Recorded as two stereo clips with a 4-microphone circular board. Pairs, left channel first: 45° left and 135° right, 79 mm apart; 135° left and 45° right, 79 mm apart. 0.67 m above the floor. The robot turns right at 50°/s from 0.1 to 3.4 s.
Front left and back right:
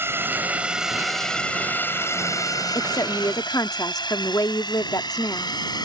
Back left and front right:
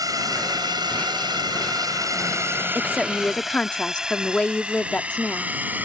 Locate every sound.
0.0 s a drone: 75° right; by 5.9 s 20° left
2.8 s a woman speaking: 30° left; by 5.9 s 65° left